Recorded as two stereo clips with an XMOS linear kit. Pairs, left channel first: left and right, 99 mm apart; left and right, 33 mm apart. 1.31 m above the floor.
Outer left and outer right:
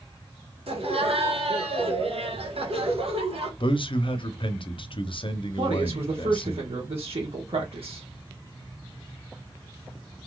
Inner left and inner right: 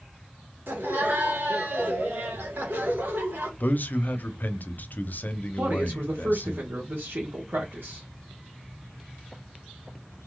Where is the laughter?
75° right (ahead or behind), 1.5 m.